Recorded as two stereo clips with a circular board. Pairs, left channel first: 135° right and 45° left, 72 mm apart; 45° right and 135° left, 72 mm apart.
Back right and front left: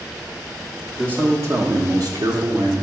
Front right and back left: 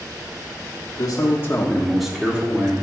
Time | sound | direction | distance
1.0 | a man speaking | 25° right | 1.2 m